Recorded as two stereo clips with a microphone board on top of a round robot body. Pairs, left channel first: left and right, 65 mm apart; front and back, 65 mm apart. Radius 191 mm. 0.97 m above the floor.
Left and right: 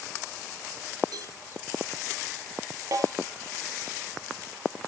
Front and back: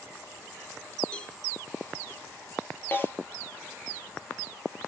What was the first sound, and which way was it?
A cowbell, 75° right.